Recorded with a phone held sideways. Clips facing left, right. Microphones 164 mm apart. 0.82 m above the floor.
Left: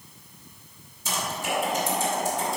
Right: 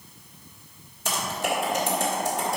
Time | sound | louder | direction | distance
1.1 | typing on a keyboard | right 2 dB | 65° right (ahead or behind) | 2 m